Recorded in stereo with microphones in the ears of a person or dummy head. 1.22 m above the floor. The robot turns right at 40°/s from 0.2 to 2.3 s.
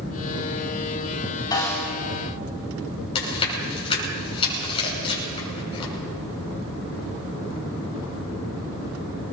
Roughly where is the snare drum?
Left.